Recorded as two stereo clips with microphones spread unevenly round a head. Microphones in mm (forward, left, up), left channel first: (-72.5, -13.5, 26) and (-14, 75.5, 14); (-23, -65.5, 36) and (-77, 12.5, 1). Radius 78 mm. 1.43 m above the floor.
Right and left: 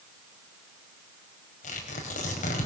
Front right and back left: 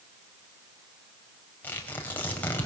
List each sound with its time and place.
1.6 s tearing paper: 125° right, 5.5 m